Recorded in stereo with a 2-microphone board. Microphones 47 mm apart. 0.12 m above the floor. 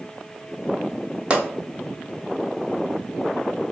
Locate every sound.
1.3 s a pop: 20° right (ahead or behind), 0.7 m